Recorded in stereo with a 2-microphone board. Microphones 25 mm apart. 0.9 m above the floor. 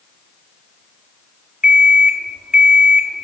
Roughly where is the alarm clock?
Right.